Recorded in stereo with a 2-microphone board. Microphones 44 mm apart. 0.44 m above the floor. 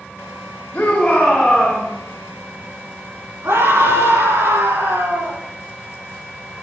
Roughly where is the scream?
Right.